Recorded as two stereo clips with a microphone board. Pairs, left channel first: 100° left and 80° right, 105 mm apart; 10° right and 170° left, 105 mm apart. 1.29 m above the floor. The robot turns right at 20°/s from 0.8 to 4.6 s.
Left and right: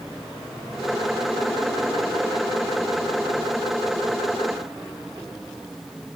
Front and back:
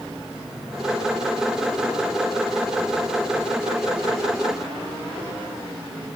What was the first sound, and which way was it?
Only background noise.